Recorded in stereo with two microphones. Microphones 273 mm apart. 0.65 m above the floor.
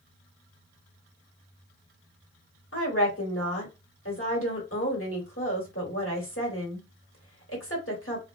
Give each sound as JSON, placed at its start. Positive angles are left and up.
{"t": 2.7, "sound": "a woman speaking", "side_deg": 50, "distance_m": 1.4}